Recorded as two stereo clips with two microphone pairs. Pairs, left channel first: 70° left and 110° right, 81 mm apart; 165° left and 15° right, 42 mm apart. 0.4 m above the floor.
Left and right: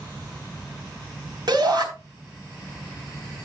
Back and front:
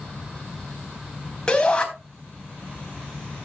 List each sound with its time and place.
1.5 s a shout: 130° right, 3.5 m